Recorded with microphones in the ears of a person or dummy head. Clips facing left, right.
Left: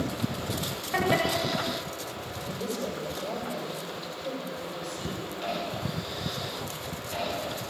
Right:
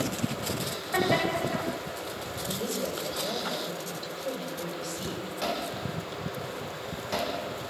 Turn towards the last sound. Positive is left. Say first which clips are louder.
# even
turn(degrees=-60)  # may be behind; listen again after turning